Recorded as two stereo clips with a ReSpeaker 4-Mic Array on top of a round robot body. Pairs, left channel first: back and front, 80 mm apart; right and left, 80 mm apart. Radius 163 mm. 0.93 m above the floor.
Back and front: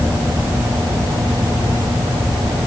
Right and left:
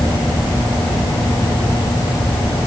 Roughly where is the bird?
No bird in this recording.